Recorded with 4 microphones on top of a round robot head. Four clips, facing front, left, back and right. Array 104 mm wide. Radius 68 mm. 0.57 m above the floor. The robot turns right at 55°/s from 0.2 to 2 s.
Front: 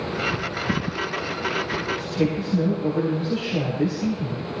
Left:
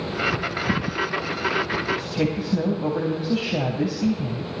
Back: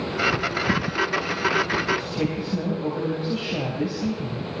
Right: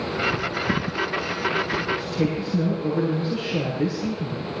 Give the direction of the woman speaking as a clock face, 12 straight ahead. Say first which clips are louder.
Even, front 3 dB; 9 o'clock.